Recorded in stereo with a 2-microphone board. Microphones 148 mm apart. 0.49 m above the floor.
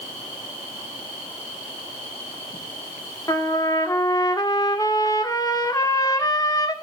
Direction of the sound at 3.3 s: 25° left (ahead or behind).